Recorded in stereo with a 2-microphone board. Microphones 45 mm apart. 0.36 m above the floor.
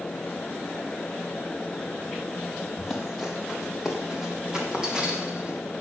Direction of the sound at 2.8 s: Centre (ahead or behind).